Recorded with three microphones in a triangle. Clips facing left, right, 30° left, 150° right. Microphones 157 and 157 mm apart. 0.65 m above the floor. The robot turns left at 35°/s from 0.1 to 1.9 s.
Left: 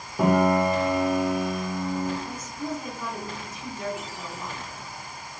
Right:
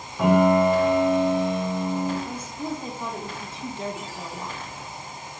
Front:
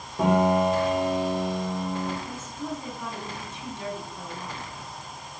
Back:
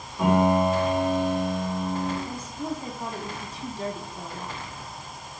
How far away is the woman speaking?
About 0.6 m.